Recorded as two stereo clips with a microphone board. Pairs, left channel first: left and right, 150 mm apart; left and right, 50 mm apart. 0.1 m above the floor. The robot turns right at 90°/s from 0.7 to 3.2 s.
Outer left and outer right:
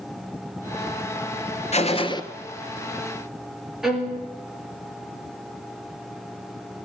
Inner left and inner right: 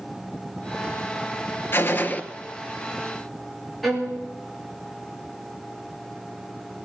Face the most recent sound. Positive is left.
turn(degrees=-5)  # may be behind; listen again after turning